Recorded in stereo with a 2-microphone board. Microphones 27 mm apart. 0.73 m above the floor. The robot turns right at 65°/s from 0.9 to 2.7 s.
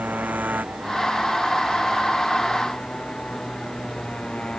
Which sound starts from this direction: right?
A motorcycle, at 0.0 s.